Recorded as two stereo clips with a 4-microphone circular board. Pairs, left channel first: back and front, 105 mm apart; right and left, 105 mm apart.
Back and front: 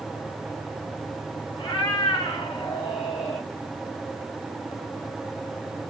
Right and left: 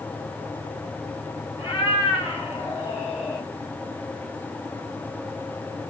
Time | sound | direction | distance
1.6 | a cat meowing | 140° right | 3 m